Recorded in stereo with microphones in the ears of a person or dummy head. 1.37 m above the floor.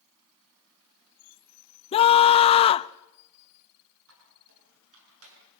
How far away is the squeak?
About 8 m.